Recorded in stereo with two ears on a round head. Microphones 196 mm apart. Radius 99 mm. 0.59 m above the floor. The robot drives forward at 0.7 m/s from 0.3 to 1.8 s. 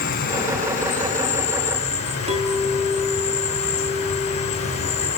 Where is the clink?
25° right (ahead or behind), 4.5 m.